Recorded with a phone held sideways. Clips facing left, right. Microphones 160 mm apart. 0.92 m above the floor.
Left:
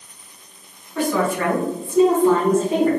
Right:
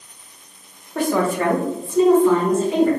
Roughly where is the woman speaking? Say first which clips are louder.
Right 1 dB; right.